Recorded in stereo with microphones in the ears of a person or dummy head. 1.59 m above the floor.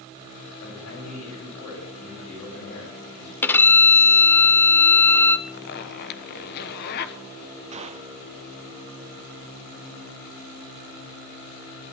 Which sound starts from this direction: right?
A gunshot, at 7.7 s.